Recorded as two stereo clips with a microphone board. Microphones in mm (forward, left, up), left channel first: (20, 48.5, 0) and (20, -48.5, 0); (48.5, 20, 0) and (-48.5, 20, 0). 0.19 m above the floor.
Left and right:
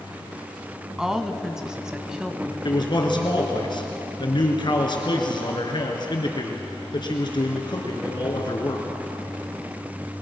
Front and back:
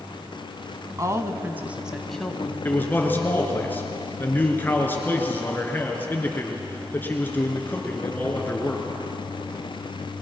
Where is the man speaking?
65° left, 3 m.